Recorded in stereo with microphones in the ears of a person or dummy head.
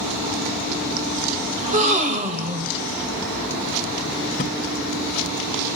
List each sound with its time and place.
1.6 s a gasp: 40° right (ahead or behind), 2 m
4.4 s a thud: 30° left (ahead or behind), 1.2 m